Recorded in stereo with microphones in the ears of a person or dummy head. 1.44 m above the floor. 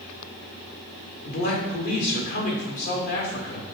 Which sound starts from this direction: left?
A man speaking, at 1.2 s.